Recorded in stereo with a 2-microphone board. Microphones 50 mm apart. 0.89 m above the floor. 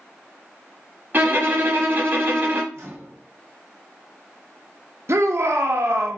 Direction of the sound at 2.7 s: 60° right (ahead or behind).